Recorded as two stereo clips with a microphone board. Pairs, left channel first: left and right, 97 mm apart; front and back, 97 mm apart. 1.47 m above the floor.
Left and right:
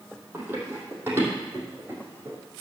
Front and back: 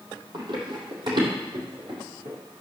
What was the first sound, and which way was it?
Running footsteps, 155° right.